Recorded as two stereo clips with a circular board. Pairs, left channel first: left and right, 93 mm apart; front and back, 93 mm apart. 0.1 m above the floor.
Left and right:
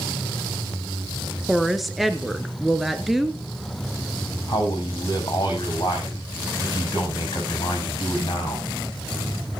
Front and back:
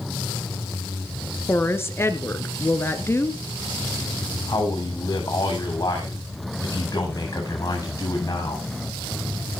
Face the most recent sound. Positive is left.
turn(degrees=45)